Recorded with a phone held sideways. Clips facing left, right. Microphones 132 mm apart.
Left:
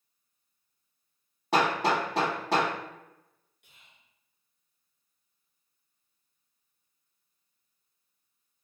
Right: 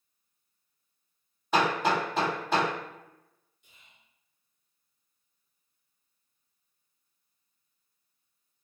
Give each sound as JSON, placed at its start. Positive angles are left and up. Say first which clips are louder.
{"t": 1.5, "sound": "hammering", "louder": "even", "side_deg": 75, "distance_m": 1.7}
{"t": 3.6, "sound": "whispering", "louder": "even", "side_deg": 65, "distance_m": 0.9}